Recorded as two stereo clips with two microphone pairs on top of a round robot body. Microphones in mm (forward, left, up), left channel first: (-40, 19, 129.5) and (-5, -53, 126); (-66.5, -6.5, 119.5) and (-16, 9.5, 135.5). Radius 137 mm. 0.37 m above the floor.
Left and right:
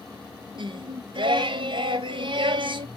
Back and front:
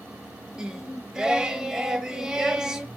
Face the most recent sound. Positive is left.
turn(degrees=-65)